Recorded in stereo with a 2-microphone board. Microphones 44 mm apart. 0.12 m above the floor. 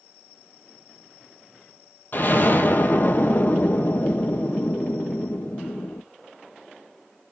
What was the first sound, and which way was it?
An explosion, 50° left (ahead or behind).